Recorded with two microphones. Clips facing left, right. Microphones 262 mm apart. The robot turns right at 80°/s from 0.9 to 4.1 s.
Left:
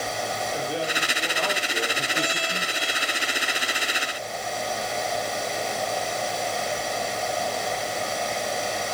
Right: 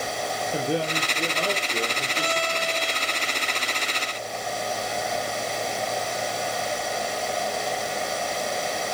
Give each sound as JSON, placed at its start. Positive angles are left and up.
{"t": 0.5, "sound": "a man speaking", "azimuth_deg": -75, "distance_m": 3.0}
{"t": 2.1, "sound": "a violin", "azimuth_deg": 55, "distance_m": 3.0}